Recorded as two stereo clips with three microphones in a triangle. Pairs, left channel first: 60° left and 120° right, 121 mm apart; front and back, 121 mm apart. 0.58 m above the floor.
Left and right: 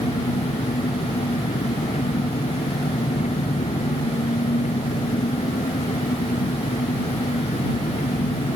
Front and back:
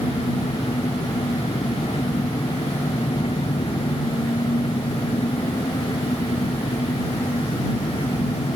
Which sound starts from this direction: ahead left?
An engine running, at 0.0 s.